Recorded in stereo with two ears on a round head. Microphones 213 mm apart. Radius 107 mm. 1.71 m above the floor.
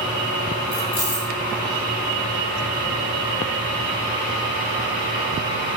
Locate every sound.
0.7 s keys jangling: 40° left (ahead or behind), 3.5 m